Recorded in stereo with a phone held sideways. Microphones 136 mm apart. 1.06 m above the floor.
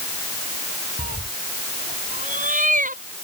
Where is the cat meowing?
70° right (ahead or behind); by 3.2 s 75° right (ahead or behind).